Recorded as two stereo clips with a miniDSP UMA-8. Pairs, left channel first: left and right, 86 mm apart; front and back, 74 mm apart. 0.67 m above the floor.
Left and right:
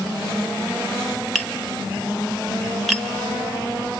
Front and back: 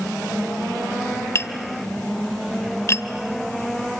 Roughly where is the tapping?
Ahead.